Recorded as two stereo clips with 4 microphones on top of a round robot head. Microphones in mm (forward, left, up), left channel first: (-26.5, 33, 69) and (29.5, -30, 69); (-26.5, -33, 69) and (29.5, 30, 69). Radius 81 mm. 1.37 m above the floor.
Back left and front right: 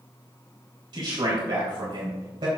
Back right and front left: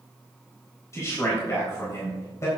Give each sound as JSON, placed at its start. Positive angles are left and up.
{"t": 0.9, "sound": "a man speaking", "azimuth_deg": -80, "distance_m": 3.5}